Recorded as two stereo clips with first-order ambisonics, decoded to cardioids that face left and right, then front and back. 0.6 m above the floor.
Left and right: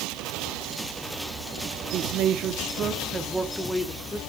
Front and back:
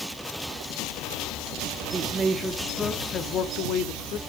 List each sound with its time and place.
1.9 s a man speaking: 120° right, 1.2 m; by 4.2 s 15° left, 1.5 m